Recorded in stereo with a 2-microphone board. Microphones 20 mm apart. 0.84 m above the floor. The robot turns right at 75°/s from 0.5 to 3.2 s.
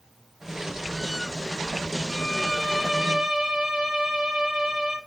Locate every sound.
2.1 s a violin: 140° left, 0.8 m; by 5.0 s 140° right, 0.8 m